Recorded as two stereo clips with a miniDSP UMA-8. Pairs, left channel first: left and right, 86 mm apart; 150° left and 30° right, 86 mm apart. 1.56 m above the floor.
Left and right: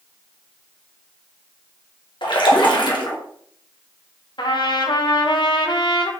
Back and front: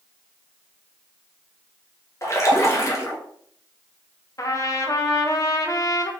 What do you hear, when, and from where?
2.2 s a splash: 100° left, 1.1 m
4.4 s a trumpet: 105° left, 0.8 m